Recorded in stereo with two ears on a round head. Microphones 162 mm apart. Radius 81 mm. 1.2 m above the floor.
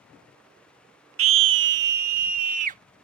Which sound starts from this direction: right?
A scream, at 1.2 s.